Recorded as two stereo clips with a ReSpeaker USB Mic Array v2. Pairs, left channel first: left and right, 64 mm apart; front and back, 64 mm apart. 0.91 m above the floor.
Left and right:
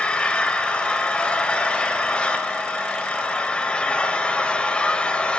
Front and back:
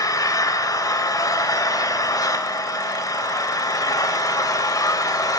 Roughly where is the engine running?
Ahead.